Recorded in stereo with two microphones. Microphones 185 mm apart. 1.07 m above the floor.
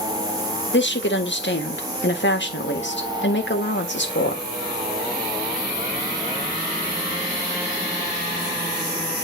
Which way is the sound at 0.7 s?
80° left.